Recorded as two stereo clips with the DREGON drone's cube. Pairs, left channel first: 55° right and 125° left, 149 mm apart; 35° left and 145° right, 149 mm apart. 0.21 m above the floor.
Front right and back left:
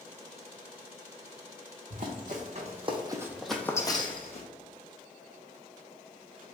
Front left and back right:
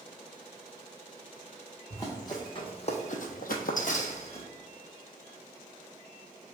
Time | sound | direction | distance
1.9 | running footsteps | 105° left | 1.1 m